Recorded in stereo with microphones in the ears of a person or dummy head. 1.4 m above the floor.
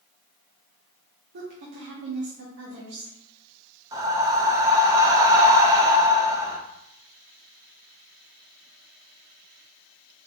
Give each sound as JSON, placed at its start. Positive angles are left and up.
{"t": 1.3, "sound": "a woman speaking", "side_deg": -60, "distance_m": 0.9}
{"t": 3.9, "sound": "breathing", "side_deg": -20, "distance_m": 0.7}